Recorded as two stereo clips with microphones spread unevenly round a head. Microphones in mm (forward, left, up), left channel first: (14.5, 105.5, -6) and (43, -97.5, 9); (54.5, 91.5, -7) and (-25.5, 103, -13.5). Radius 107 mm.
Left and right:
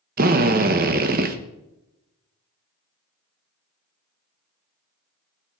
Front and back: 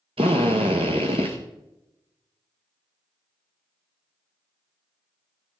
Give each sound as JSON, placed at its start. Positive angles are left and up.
{"t": 0.2, "sound": "a drill", "azimuth_deg": -135, "distance_m": 1.2}